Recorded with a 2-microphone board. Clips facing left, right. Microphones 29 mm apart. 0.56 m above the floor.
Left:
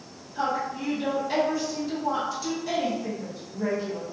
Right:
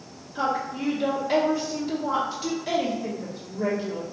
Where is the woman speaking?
25° right (ahead or behind), 1.2 m.